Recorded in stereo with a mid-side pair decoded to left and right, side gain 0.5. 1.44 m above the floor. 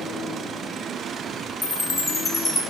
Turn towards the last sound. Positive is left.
turn(degrees=15)